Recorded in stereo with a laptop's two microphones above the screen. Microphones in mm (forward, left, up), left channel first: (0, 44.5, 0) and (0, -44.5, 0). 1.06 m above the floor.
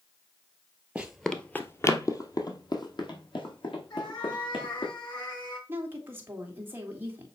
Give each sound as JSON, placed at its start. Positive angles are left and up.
{"t": 0.9, "sound": "running footsteps", "side_deg": -15, "distance_m": 1.1}
{"t": 3.9, "sound": "a cat meowing", "side_deg": 50, "distance_m": 4.5}
{"t": 5.7, "sound": "a woman speaking", "side_deg": -25, "distance_m": 1.9}